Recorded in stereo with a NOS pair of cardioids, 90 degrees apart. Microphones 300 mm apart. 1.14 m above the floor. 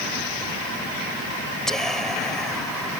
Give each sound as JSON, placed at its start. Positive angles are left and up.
{"t": 1.7, "sound": "whispering", "azimuth_deg": 0}